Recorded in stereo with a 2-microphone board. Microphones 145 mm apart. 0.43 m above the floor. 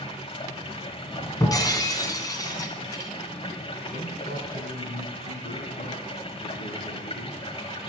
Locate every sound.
0.0 s running water: 35° left (ahead or behind), 1.5 m
1.4 s breaking glass: 25° left (ahead or behind), 2 m
3.9 s a man speaking: 75° left (ahead or behind), 4 m